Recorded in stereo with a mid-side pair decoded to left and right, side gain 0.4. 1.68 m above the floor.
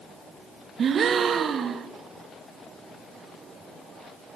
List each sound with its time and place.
0.8 s a gasp: 60° right, 0.5 m